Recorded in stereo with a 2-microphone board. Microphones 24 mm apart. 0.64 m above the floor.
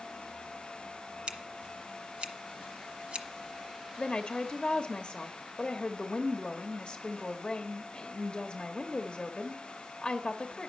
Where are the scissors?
50° right (ahead or behind), 1.1 m.